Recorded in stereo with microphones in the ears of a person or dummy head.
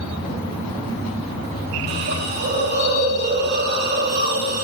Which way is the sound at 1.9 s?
55° right (ahead or behind).